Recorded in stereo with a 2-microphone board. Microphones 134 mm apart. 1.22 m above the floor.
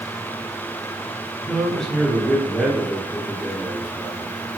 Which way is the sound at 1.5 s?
5° left (ahead or behind).